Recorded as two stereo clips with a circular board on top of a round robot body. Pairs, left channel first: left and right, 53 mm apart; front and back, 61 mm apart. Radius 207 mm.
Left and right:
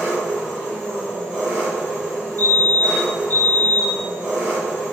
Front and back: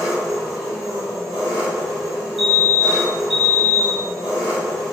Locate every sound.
0.0 s an engine running: 175° right, 0.9 m
2.4 s a fire alarm: 100° left, 1.9 m